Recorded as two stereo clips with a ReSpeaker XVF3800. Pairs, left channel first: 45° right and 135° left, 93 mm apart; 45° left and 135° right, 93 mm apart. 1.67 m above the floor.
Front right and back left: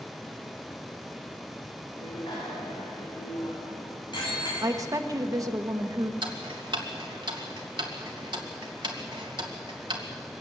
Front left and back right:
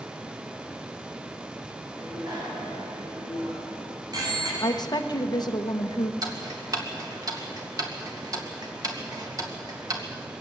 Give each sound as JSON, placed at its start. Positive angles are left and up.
{"t": 1.9, "sound": "a bicycle bell", "azimuth_deg": -85, "distance_m": 7.5}
{"t": 4.6, "sound": "a woman speaking", "azimuth_deg": 85, "distance_m": 1.2}
{"t": 6.2, "sound": "ticking", "azimuth_deg": 175, "distance_m": 2.5}